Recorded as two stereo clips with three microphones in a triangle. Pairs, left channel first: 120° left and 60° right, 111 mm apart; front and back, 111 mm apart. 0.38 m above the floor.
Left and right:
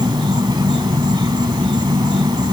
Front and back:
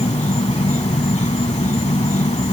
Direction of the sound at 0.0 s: 10° right.